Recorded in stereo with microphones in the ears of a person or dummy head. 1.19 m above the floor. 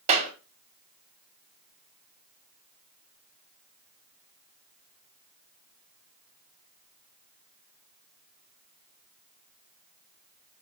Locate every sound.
0.1 s a clap: 35° right (ahead or behind), 1.3 m